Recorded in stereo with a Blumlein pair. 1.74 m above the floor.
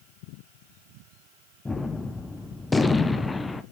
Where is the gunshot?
10° left, 0.7 m.